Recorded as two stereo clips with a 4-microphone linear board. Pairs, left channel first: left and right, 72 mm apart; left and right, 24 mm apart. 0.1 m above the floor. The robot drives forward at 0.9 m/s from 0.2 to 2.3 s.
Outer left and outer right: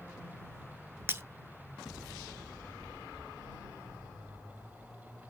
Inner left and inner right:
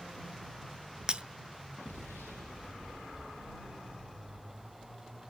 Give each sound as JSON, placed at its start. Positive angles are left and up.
{"t": 1.1, "sound": "breaking glass", "side_deg": -30, "distance_m": 0.5}